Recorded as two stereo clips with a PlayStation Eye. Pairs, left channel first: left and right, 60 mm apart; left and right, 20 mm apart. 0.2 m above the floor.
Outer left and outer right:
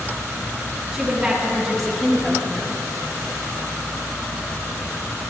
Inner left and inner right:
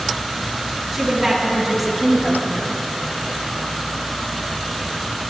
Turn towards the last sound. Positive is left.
turn(degrees=10)  # may be behind; listen again after turning